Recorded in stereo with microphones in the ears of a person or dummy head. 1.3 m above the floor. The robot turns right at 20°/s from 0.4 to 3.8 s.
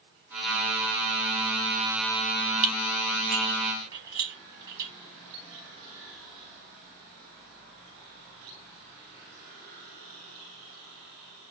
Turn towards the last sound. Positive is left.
turn(degrees=-20)  # may be behind; listen again after turning